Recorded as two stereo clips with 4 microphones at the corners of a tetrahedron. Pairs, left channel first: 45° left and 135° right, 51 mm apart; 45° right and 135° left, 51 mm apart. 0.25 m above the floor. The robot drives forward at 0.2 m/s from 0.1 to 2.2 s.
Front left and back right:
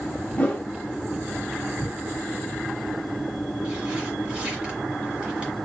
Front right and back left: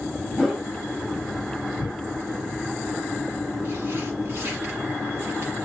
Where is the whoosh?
65° left, 1.5 m; by 0.7 s 70° left, 1.5 m.